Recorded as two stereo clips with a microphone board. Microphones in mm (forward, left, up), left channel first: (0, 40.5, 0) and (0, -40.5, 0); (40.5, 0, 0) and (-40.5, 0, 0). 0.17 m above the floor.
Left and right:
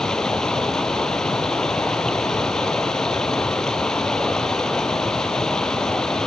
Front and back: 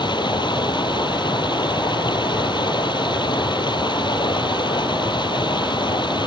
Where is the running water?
10° left.